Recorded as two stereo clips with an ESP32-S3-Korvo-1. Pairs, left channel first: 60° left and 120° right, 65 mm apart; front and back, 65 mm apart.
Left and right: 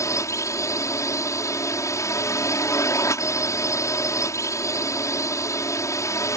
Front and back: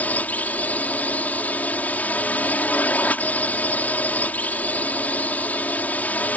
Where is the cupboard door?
No cupboard door in this recording.